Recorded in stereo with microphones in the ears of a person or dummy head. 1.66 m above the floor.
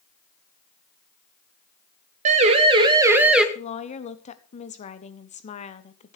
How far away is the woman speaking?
About 1.2 m.